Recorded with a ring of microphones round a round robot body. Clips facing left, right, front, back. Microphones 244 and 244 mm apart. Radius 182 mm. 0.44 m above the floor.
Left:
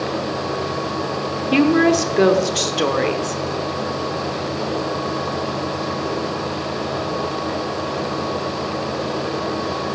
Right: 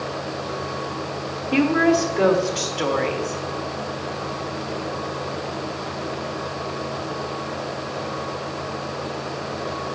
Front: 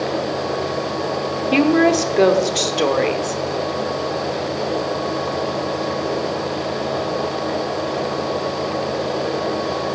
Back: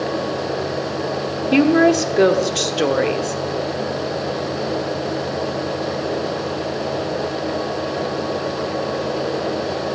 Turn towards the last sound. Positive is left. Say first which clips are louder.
# left 3 dB, back 1 dB
turn(degrees=105)